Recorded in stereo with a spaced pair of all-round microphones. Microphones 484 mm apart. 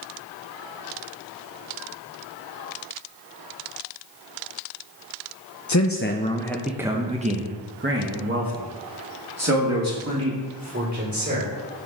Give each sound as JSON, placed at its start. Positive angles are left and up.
{"t": 5.7, "sound": "a man speaking", "side_deg": 40, "distance_m": 0.6}